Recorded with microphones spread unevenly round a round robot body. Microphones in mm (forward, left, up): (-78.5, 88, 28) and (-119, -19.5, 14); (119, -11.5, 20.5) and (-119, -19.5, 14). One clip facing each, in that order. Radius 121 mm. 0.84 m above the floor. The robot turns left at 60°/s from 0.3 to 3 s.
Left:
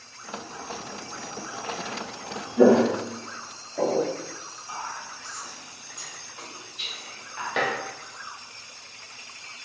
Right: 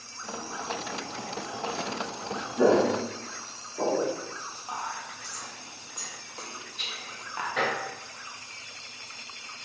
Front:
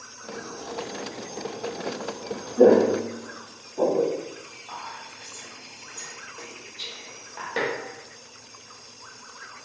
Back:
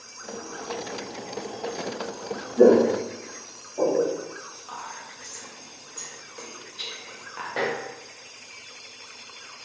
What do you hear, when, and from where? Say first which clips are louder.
2.6 s footsteps: left 4 dB, even; 110° left, 1.1 m; by 4.1 s 55° left, 2.5 m
4.7 s whispering: even, even; 110° right, 1.2 m
7.6 s dishes clattering: left 2 dB, even; 65° left, 0.9 m